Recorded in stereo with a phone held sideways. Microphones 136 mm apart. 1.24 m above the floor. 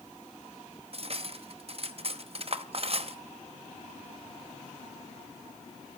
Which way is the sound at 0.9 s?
45° right (ahead or behind).